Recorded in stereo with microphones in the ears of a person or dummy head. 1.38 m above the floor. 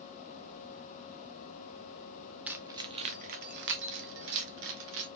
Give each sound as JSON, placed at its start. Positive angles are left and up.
{"t": 2.5, "sound": "keys jangling", "side_deg": -5, "distance_m": 0.7}